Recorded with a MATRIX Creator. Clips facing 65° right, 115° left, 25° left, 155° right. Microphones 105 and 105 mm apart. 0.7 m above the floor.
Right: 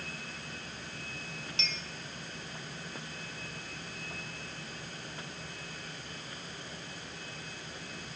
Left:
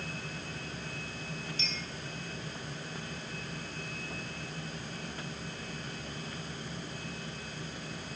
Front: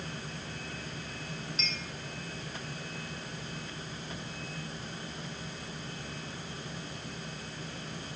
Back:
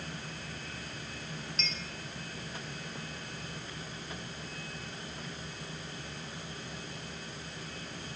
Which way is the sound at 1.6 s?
65° right.